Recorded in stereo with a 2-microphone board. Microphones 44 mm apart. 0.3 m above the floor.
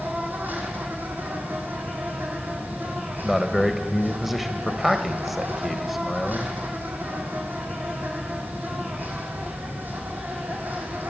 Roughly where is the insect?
Right.